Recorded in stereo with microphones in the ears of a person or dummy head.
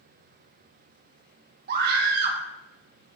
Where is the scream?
55° right (ahead or behind), 1.7 m.